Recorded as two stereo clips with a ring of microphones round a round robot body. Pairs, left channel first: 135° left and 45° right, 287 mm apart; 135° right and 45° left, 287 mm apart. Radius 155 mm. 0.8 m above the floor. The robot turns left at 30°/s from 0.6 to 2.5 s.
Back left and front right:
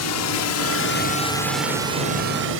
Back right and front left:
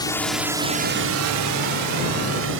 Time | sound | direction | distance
0.0 | a drone | 150° left | ?